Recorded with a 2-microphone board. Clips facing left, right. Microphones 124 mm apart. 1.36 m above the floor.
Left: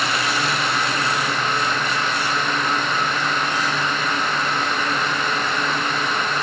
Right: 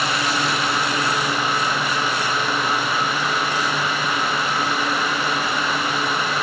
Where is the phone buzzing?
I don't hear a phone buzzing.